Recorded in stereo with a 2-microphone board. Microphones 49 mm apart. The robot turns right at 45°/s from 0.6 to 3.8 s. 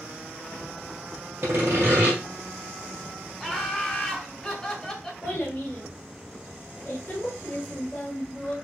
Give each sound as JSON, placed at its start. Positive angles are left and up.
{"t": 1.4, "sound": "sawing", "azimuth_deg": -60, "distance_m": 2.5}
{"t": 3.4, "sound": "laughter", "side_deg": 5, "distance_m": 1.8}
{"t": 5.2, "sound": "a child speaking", "side_deg": 60, "distance_m": 2.5}